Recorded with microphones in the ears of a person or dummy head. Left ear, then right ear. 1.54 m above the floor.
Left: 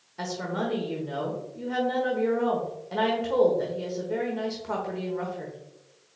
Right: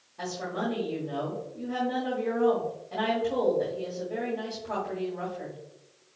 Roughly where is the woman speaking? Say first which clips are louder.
Left 2 dB; left.